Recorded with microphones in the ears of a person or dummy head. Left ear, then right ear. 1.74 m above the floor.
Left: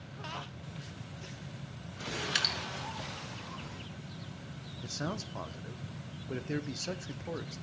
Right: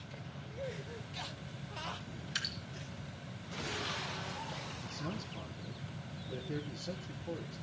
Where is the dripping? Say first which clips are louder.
Left 7 dB; 40° left (ahead or behind), 3.5 m.